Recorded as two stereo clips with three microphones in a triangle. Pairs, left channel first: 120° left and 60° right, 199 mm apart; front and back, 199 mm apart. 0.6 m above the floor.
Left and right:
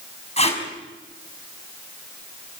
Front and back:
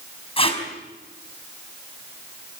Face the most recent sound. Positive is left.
turn(degrees=65)